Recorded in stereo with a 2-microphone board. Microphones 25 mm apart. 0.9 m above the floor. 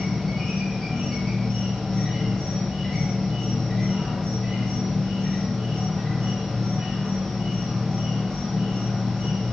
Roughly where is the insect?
Left.